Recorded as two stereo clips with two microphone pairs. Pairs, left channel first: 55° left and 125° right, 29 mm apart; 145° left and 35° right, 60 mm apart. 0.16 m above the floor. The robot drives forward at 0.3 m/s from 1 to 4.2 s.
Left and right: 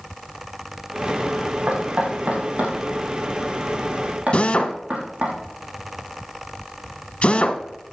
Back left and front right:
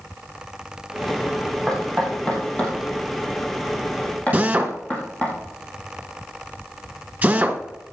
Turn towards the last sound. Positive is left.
turn(degrees=25)